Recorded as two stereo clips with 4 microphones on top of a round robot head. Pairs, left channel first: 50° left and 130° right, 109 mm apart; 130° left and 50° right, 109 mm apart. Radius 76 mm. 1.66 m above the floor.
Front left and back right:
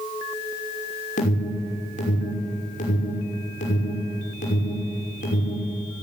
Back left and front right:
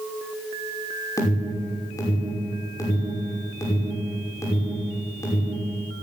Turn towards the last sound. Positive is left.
turn(degrees=65)